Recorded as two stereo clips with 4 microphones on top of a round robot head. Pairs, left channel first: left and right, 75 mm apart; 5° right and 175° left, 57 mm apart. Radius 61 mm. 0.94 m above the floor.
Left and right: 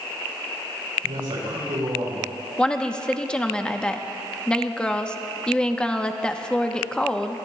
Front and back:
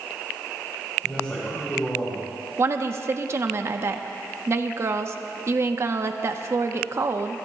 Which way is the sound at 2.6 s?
165° left.